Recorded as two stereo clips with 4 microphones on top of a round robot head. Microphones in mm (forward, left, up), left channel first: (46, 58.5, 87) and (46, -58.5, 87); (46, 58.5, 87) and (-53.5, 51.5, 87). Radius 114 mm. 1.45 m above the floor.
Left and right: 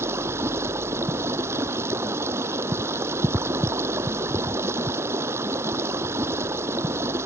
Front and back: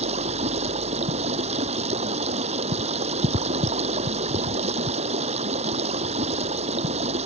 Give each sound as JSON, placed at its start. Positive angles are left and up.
{"t": 0.0, "sound": "running water", "azimuth_deg": -160}